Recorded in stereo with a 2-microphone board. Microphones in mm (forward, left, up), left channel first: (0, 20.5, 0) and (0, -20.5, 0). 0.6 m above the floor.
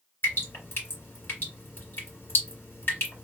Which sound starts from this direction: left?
Dripping, at 0.2 s.